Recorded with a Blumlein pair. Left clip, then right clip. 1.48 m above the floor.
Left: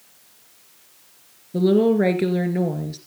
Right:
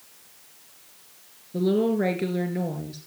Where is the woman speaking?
65° left, 2.5 m.